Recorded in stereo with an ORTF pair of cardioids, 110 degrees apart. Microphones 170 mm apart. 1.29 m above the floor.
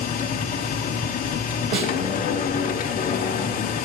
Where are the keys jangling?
I don't hear keys jangling.